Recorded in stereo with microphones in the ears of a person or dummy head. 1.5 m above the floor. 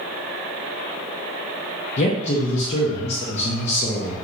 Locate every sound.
2.0 s a man speaking: 35° left (ahead or behind), 0.5 m